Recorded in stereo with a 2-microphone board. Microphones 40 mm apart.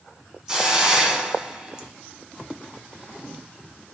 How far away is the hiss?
About 2.0 m.